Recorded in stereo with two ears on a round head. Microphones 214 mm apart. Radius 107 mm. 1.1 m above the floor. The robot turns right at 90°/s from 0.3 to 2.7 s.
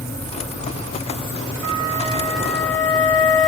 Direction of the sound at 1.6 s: 60° right.